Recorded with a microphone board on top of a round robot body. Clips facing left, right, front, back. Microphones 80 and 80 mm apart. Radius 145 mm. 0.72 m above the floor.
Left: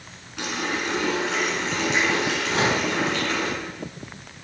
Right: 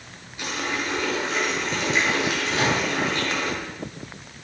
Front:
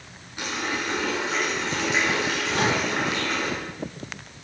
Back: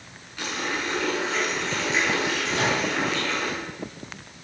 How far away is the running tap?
About 7 m.